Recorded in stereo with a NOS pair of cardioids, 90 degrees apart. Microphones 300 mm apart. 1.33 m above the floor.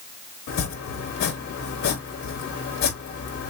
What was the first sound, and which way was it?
Chopping, 65° left.